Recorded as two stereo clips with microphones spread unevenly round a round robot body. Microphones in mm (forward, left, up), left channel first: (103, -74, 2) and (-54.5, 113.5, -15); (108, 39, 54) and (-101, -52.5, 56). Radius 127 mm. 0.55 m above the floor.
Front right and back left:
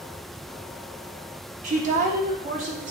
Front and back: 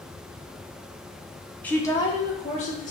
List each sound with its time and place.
1.6 s a woman speaking: 105° left, 0.7 m; by 2.9 s 75° left, 1.2 m